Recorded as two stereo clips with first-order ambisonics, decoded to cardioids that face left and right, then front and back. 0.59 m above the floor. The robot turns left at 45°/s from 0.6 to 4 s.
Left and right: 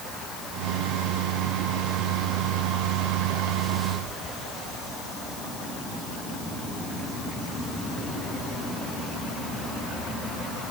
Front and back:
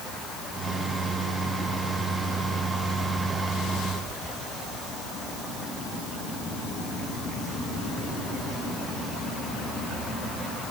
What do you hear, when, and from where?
Only background noise.